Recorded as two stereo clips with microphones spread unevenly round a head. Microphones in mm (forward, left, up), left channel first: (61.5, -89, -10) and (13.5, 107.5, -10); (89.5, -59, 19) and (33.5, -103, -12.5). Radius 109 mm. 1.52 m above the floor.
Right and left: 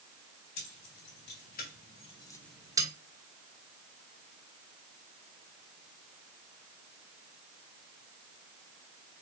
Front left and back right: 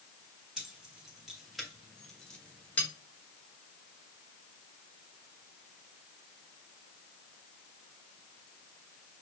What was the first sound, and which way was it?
Keys jangling, 50° right.